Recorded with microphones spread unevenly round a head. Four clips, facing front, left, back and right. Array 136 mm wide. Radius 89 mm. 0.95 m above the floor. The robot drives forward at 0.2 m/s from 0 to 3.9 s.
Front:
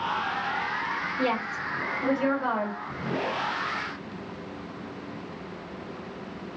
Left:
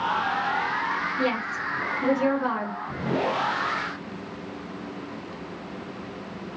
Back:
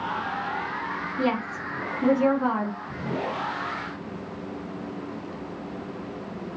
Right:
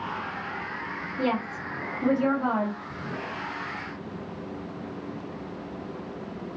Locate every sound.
1.2 s a woman speaking: 160° right, 1.6 m; by 2.8 s 165° right, 1.9 m